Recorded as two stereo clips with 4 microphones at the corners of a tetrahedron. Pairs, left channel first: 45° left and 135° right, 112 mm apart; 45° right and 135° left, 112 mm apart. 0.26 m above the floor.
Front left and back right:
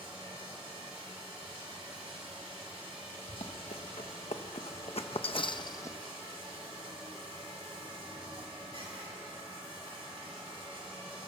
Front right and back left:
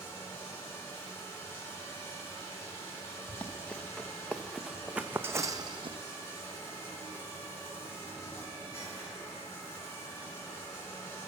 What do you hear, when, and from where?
0.0 s running water: 110° right, 2.5 m
3.3 s running footsteps: 30° left, 1.7 m; by 6.0 s 110° left, 0.5 m